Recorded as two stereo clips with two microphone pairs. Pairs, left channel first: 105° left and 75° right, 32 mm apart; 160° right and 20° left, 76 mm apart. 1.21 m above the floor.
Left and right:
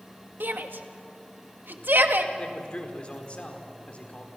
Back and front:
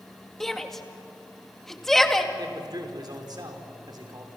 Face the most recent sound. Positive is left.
turn(degrees=50)